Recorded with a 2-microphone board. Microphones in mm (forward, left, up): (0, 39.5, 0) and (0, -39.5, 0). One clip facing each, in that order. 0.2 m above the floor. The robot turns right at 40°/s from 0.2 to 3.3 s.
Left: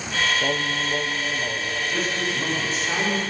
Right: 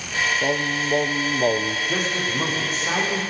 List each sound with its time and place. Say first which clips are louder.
0.4 s singing: right 2 dB; 170° right, 1.1 m; by 1.8 s 115° right, 1.1 m
1.9 s a man speaking: right 1 dB; 80° right, 10 m; by 3.2 s 25° right, 10 m